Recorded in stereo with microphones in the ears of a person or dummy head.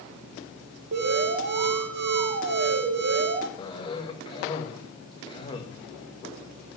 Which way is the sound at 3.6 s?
25° left (ahead or behind).